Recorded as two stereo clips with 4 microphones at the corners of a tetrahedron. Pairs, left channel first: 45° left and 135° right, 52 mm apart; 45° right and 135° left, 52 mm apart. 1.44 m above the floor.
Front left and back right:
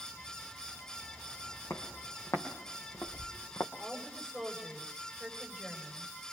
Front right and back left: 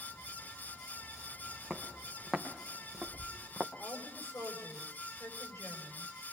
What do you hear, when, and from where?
1.7 s footsteps: 45° left, 4 m; by 3.7 s 50° left, 3 m
3.8 s a woman speaking: 45° right, 7 m